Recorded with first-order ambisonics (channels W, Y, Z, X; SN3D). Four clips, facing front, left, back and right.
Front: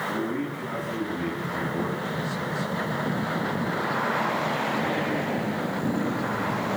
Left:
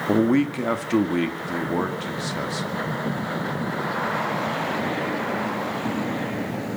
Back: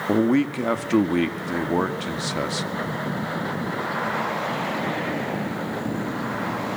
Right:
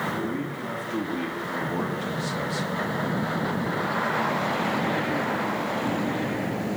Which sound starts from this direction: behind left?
A man speaking, at 0.1 s.